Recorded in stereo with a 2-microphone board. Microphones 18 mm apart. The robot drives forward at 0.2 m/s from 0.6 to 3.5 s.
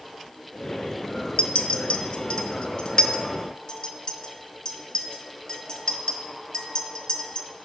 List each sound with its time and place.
1.4 s a clink: 65° left (ahead or behind), 0.5 m; by 7.5 s 35° left (ahead or behind), 0.8 m